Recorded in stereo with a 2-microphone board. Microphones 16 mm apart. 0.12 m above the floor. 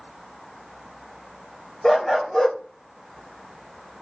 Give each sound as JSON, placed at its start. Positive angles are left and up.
{"t": 1.8, "sound": "a dog barking", "side_deg": 35, "distance_m": 2.0}